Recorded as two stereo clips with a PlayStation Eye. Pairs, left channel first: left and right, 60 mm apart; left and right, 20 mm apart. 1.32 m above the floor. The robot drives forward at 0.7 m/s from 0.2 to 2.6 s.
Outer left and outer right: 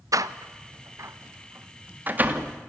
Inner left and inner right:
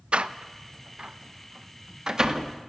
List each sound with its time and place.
0.1 s a door slam: 70° right (ahead or behind), 0.9 m; by 2.5 s 25° right (ahead or behind), 1.8 m